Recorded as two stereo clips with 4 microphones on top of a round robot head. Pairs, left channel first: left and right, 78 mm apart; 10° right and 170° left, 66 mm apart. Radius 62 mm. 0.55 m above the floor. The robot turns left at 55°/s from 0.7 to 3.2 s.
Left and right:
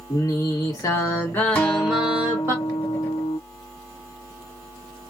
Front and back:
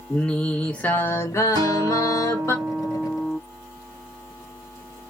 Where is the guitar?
160° left, 0.8 m; by 3.4 s 70° left, 0.8 m.